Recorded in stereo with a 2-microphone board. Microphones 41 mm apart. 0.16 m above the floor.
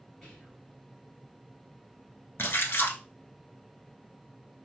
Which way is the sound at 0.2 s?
5° left (ahead or behind).